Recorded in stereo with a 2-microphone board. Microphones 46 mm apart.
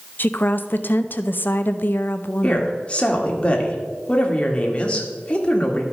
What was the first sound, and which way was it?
A woman speaking, 50° left (ahead or behind).